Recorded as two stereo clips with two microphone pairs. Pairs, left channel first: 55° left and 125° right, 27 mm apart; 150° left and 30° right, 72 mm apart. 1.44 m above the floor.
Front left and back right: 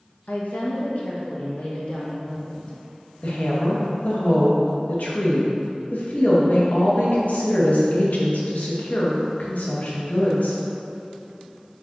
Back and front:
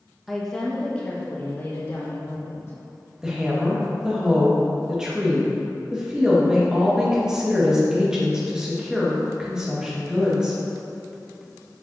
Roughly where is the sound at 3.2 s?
Ahead left.